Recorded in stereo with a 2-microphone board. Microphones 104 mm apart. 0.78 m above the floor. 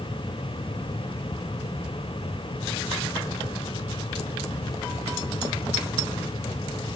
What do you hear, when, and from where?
Only background noise.